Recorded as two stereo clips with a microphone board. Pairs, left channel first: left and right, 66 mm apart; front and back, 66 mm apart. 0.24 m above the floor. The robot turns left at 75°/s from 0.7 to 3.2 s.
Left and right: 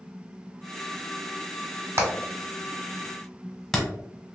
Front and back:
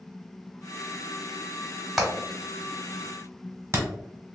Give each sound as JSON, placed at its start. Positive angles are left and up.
{"t": 2.0, "sound": "hammering", "azimuth_deg": -95, "distance_m": 1.2}